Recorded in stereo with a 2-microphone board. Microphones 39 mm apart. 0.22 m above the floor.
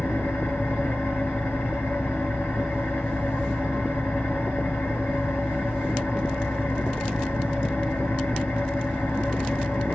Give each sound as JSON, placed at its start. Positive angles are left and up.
{"t": 0.0, "sound": "an engine running", "side_deg": 65, "distance_m": 3.0}